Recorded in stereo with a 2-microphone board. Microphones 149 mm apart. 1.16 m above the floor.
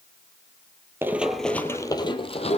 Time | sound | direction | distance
1.0 | running footsteps | 15° right (ahead or behind) | 1.2 m